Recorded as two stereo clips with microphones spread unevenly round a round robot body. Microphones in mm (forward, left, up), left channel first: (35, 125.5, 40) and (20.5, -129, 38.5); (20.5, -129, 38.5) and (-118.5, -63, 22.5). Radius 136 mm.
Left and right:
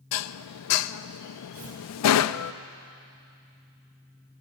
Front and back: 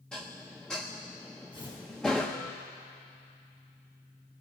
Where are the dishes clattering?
60° left, 0.5 m.